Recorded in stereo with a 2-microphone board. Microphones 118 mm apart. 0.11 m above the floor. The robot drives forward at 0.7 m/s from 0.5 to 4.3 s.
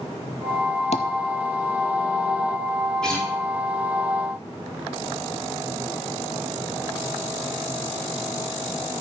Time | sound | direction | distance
0.9 | tapping | 70° left (ahead or behind) | 0.8 m
3.0 | a guitar | 5° left (ahead or behind) | 3 m